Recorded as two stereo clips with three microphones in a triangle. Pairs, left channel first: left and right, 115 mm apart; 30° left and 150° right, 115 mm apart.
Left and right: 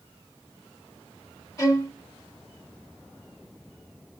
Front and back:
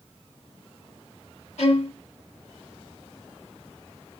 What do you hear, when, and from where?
1.6 s a violin: 35° left, 0.6 m